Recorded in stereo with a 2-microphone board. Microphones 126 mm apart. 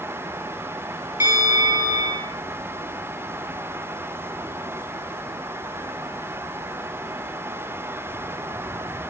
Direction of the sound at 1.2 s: 20° right (ahead or behind).